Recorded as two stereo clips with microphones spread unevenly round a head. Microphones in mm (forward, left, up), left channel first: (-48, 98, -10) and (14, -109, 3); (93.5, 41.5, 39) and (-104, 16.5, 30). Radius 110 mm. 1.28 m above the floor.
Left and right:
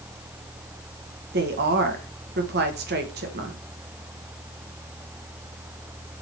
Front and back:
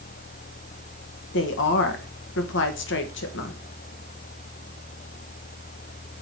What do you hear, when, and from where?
1.3 s a woman speaking: 25° right, 1.6 m